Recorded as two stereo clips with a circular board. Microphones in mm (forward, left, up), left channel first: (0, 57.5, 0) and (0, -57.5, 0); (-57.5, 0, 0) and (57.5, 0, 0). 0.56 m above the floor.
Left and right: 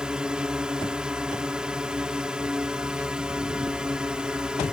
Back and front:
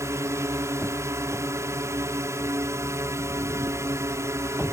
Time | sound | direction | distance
0.0 | a drone | 15° right | ?